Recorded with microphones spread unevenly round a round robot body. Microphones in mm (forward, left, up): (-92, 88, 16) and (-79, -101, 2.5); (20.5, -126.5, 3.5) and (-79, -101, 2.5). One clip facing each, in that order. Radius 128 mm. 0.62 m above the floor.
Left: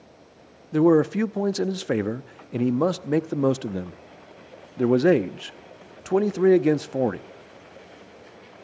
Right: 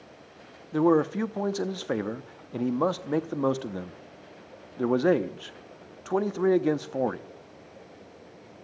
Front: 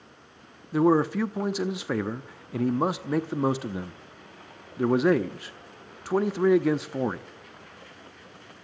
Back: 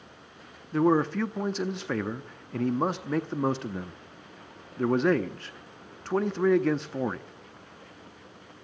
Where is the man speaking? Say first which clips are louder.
Left 4 dB, front 2 dB; 60° left, 0.6 m.